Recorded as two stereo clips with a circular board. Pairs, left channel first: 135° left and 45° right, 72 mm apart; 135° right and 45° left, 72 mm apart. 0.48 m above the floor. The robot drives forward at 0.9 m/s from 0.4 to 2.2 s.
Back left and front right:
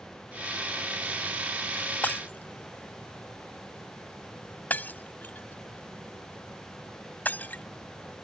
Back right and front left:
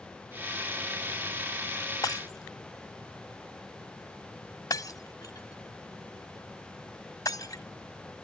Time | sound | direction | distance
2.0 | breaking glass | 160° right | ?